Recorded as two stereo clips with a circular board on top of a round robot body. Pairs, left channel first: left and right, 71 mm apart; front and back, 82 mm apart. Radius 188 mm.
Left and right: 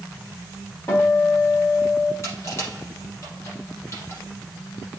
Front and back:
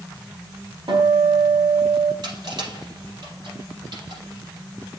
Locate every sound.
0.9 s a guitar: 150° left, 3.5 m
2.2 s crushing: 145° left, 3.5 m